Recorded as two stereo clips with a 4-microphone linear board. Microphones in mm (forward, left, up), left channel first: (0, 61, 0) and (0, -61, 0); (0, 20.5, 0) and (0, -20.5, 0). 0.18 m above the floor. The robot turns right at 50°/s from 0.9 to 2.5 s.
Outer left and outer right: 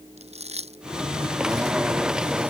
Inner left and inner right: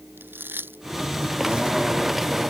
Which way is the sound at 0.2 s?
60° right (ahead or behind).